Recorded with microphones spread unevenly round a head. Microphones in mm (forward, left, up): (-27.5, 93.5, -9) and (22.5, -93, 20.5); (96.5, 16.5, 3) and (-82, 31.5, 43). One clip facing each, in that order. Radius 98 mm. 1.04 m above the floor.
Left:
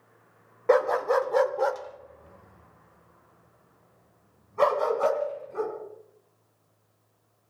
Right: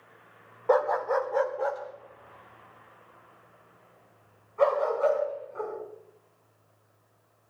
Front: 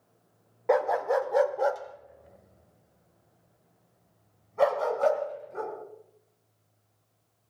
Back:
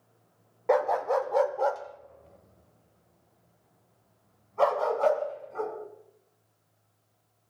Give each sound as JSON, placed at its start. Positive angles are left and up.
{"t": 0.7, "sound": "a dog barking", "azimuth_deg": 115, "distance_m": 0.6}